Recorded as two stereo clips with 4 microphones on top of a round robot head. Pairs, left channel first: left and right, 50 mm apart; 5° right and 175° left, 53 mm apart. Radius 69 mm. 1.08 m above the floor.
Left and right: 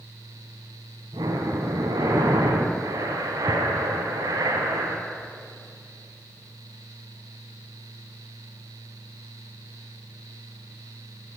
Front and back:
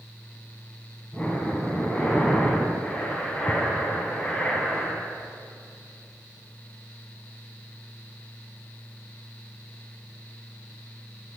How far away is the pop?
I don't hear a pop.